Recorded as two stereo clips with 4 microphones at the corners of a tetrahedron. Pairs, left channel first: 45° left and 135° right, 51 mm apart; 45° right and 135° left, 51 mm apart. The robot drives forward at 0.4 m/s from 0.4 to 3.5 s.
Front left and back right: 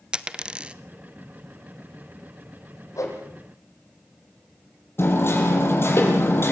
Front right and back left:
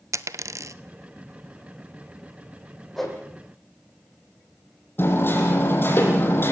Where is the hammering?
5° left, 6.5 m.